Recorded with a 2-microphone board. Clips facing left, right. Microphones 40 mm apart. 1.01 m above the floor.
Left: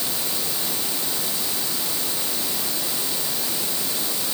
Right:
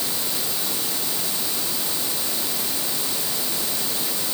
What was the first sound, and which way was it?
Only background noise.